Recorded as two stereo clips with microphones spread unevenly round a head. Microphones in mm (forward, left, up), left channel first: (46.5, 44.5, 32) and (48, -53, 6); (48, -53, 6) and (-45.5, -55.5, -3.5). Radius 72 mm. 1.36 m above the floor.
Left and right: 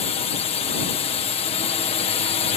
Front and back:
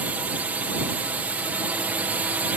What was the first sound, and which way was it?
A drone, 110° left.